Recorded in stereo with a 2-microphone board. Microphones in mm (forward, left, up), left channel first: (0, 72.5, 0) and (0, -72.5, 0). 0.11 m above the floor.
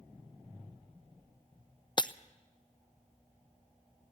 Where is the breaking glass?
35° left (ahead or behind), 0.6 m.